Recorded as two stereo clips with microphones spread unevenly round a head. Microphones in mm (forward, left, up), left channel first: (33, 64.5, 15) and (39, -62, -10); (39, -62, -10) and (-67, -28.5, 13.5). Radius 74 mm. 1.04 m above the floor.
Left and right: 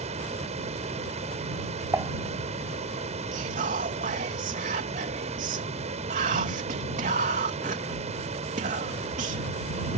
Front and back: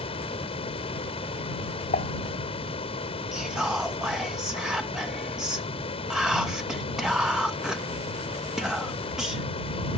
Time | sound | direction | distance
0.0 | a fan | 50° right | ?
1.9 | dishes clattering | 15° right | ?
3.3 | whispering | 110° right | ?